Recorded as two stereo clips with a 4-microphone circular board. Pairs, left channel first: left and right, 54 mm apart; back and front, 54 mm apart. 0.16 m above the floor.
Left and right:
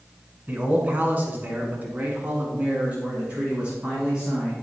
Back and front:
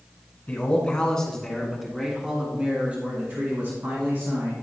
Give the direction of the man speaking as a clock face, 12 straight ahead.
4 o'clock.